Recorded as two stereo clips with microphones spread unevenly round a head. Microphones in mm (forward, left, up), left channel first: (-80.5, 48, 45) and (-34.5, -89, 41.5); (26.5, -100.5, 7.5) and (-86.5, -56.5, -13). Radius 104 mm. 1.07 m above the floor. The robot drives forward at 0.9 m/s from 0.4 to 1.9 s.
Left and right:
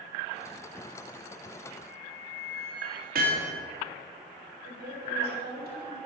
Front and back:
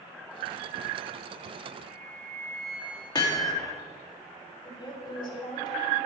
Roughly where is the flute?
Behind left.